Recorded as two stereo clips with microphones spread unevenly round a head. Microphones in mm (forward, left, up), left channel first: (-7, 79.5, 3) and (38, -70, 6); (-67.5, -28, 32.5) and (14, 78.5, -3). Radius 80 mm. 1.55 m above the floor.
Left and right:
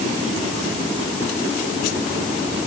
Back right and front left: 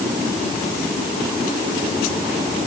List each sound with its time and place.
Only background noise.